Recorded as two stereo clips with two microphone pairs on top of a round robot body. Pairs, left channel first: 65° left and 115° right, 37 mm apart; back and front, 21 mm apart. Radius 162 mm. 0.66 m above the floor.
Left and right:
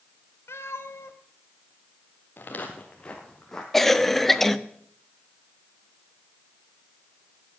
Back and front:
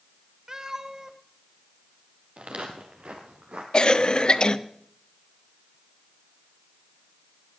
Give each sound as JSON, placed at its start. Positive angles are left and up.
{"t": 0.5, "sound": "a cat meowing", "azimuth_deg": 65, "distance_m": 1.6}
{"t": 2.4, "sound": "footsteps", "azimuth_deg": 20, "distance_m": 1.1}
{"t": 3.7, "sound": "a cough", "azimuth_deg": 145, "distance_m": 1.4}